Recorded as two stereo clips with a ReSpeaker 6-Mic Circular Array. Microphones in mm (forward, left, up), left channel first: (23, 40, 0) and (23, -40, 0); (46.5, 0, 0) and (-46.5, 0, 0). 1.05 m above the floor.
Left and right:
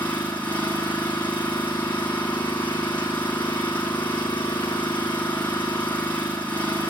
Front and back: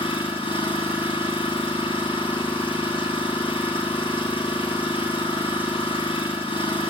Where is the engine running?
20° left, 8 m.